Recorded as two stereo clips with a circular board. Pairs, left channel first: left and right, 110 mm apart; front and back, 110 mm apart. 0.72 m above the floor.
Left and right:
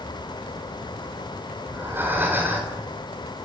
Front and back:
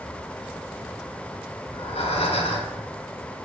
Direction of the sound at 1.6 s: 20° right.